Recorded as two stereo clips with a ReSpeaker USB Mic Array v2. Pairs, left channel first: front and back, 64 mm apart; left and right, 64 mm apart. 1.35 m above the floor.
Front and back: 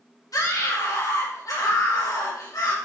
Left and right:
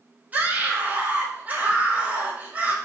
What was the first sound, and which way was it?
A scream, 25° right.